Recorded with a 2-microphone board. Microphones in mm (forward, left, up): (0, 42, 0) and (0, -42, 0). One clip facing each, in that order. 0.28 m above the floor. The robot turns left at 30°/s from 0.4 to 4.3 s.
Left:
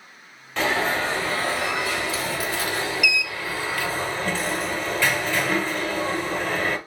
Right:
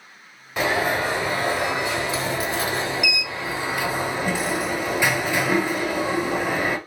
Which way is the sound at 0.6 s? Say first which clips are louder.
Right 1 dB; 10° right (ahead or behind).